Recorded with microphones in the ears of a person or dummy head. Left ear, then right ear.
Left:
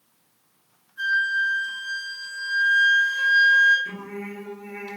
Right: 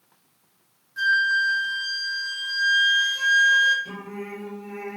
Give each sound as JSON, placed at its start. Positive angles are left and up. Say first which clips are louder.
{"t": 1.0, "sound": "a flute", "louder": "right 2 dB", "side_deg": -65, "distance_m": 1.3}
{"t": 3.9, "sound": "singing", "louder": "left 1 dB", "side_deg": 20, "distance_m": 1.8}